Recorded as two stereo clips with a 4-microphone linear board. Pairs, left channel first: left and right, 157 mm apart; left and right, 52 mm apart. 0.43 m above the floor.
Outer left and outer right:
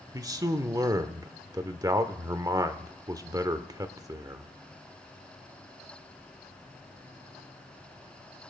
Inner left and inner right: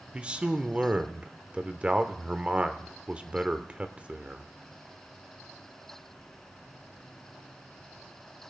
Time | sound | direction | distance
0.1 | a man speaking | 20° right (ahead or behind) | 0.9 m